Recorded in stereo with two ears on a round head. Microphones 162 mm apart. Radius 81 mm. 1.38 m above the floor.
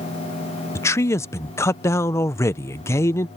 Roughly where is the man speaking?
Centre.